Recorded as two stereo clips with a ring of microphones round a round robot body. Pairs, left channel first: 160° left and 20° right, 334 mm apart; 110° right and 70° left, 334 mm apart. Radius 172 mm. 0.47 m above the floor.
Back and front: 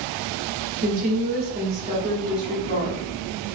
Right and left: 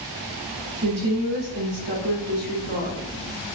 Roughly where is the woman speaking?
Ahead left.